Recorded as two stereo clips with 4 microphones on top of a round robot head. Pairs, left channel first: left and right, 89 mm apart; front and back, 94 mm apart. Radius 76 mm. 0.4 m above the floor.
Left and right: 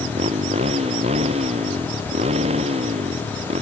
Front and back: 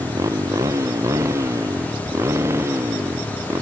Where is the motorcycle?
115° right; by 3.6 s 105° right.